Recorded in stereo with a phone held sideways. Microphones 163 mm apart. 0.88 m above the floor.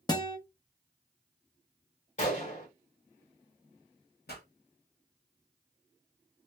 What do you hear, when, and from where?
0.1 s a guitar: 25° left (ahead or behind), 0.7 m
2.2 s a gunshot: 50° left (ahead or behind), 1.1 m
4.3 s a pop: 80° left, 1.0 m